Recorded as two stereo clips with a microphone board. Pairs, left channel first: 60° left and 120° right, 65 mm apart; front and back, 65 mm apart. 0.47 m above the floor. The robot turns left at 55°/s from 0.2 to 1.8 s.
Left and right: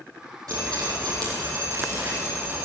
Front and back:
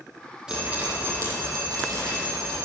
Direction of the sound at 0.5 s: 100° right.